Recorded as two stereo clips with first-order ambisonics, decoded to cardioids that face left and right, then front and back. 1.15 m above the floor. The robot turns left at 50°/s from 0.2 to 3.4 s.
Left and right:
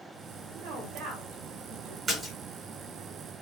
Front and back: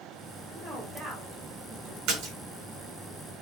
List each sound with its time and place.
0.5 s a woman speaking: 90° right, 2.5 m; by 2.0 s 160° right, 2.5 m
2.1 s a splash: 165° right, 2.5 m; by 2.4 s straight behind, 2.5 m